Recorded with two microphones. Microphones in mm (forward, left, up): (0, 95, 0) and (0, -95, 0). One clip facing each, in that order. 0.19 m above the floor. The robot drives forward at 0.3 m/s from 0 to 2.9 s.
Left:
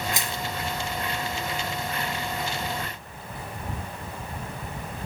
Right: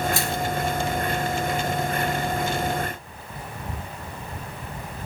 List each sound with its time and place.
0.1 s crushing: 15° left (ahead or behind), 1.6 m